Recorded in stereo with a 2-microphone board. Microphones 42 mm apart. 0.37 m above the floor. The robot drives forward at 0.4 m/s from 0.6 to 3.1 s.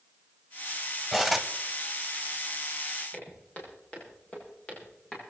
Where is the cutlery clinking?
5° right (ahead or behind), 0.9 m.